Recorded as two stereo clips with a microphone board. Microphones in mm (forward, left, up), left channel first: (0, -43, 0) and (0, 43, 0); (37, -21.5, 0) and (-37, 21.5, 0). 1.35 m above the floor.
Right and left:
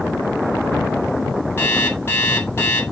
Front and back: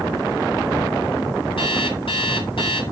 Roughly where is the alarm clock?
Ahead right.